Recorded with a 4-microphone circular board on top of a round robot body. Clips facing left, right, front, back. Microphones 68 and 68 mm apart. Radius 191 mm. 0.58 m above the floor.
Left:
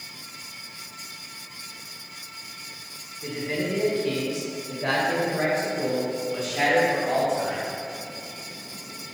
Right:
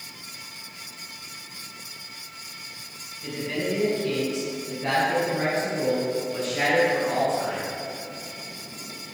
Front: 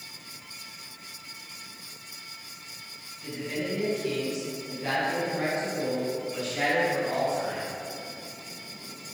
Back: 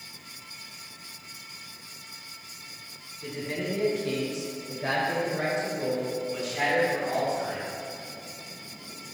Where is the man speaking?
145° left, 2 m; by 7.6 s 105° left, 4 m.